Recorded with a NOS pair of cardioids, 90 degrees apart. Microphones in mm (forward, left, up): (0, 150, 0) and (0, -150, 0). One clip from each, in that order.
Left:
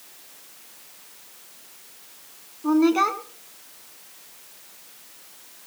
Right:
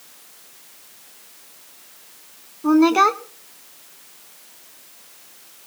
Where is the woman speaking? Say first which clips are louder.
Right 5 dB; 30° right, 0.9 m.